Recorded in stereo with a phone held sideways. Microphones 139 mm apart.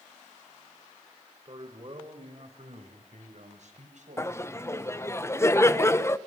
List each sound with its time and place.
1.4 s a man speaking: 35° right (ahead or behind), 3.5 m; by 5.0 s 65° right (ahead or behind), 5 m
4.2 s laughter: 20° left (ahead or behind), 0.8 m